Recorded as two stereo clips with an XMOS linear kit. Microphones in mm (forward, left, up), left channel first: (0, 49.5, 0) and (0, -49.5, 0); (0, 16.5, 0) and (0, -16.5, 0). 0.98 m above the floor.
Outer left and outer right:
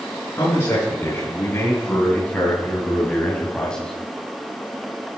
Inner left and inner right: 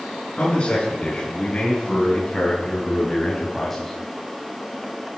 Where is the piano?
No piano in this recording.